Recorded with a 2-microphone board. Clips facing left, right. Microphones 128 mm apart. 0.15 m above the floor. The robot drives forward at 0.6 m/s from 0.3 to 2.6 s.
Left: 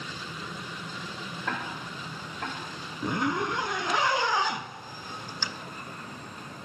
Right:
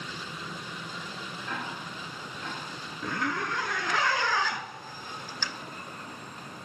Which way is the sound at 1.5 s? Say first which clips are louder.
Left 3 dB; 80° left.